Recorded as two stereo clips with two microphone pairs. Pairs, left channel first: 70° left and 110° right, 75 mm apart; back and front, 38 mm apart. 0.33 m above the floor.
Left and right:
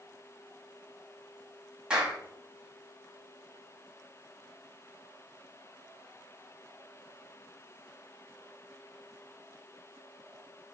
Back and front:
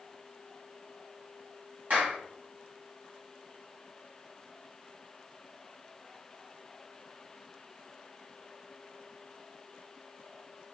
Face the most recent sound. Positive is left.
turn(degrees=-35)